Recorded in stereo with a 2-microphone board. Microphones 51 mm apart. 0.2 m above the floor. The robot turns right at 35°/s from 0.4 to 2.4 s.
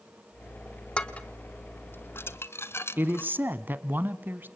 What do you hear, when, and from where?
1.0 s dishes clattering: 20° left (ahead or behind), 1.5 m; by 3.3 s 55° left (ahead or behind), 1.5 m
3.0 s a woman speaking: 40° right (ahead or behind), 1.5 m